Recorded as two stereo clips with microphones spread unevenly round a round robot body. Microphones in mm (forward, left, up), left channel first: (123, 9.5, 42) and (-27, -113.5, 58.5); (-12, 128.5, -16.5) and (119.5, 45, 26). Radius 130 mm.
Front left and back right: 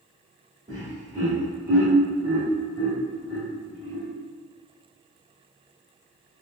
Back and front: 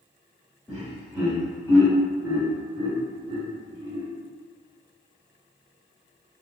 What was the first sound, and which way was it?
Laughter, 165° left.